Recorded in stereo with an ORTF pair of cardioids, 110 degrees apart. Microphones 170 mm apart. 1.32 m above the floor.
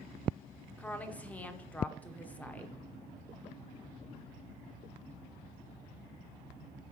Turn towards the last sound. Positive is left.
turn(degrees=10)